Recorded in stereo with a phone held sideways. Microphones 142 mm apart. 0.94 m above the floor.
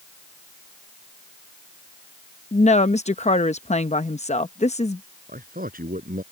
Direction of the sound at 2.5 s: 50° left (ahead or behind).